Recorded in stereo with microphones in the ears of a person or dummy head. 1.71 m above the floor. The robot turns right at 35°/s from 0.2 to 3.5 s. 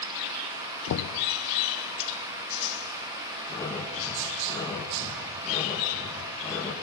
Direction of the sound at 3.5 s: 15° left (ahead or behind).